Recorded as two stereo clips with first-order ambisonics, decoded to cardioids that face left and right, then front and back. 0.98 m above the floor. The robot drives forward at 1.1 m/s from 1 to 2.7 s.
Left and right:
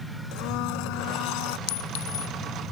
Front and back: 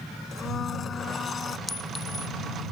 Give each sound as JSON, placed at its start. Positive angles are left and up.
{"t": 0.3, "sound": "a blender", "azimuth_deg": 65}
{"t": 1.7, "sound": "a clink", "azimuth_deg": 80}